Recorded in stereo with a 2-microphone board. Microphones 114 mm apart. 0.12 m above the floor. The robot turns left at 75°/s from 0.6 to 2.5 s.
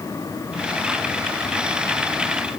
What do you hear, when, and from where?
Only background noise.